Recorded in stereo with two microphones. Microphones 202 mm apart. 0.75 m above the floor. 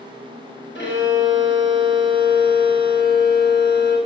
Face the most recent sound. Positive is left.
turn(degrees=60)  # may be behind; listen again after turning